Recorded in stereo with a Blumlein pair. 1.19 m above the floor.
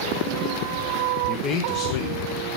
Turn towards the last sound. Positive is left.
turn(degrees=60)